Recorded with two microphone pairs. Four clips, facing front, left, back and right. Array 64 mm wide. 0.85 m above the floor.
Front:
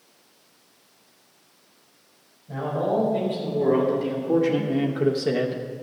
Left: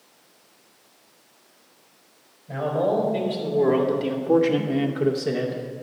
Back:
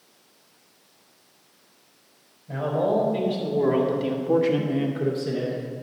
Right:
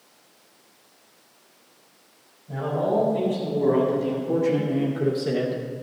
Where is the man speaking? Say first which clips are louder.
Left 1 dB, back 2 dB; 130° left, 4 m; by 5.6 s 20° right, 1.0 m.